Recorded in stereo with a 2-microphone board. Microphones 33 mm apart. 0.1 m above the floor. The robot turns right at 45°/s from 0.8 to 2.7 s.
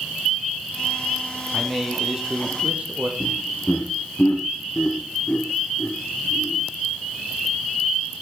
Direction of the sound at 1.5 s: 170° left.